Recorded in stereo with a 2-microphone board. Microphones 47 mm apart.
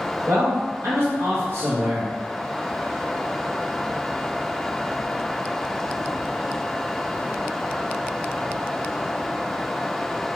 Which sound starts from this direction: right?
A man speaking, at 0.3 s.